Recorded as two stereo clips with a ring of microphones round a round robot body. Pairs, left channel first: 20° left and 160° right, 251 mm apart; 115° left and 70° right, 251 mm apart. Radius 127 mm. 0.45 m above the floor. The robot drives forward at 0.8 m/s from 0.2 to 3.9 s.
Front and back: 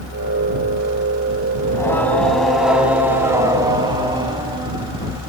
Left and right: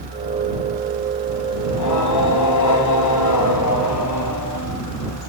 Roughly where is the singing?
Left.